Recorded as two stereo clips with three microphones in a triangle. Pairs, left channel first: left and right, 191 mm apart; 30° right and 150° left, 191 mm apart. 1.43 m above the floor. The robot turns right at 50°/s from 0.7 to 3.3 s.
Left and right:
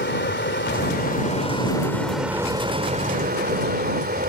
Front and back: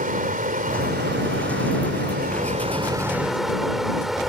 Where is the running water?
110° left; by 4.3 s 120° right.